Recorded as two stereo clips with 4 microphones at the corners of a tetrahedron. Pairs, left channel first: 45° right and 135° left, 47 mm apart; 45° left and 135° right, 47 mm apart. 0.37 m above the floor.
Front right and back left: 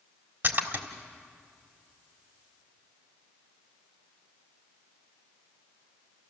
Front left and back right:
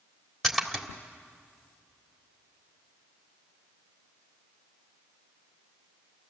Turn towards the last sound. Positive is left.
turn(degrees=135)